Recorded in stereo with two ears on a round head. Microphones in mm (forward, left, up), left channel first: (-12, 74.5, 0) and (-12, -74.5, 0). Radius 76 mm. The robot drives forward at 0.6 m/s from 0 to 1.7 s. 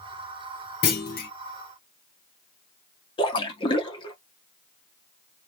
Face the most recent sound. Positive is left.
turn(degrees=30)  # may be behind; listen again after turning